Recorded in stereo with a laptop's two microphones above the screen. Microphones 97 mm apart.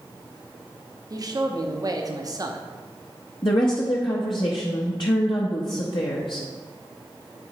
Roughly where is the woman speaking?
Left.